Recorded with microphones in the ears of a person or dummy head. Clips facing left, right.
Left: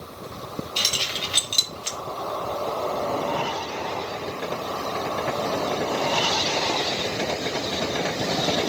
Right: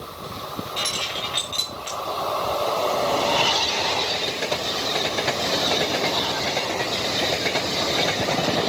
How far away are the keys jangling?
About 1.8 m.